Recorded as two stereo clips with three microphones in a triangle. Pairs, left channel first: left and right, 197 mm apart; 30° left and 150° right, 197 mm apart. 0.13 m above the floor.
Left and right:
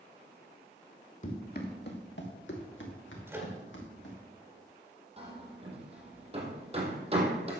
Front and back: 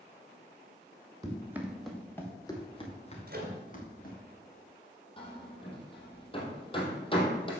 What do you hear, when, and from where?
1.2 s running footsteps: 140° left, 2 m; by 4.2 s 70° left, 3.5 m
3.3 s a microwave: 165° right, 2.0 m
5.2 s hammering: 35° right, 2.5 m